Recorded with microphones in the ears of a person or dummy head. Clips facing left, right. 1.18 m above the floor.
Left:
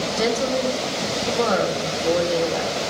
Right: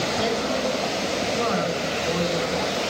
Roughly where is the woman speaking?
Left.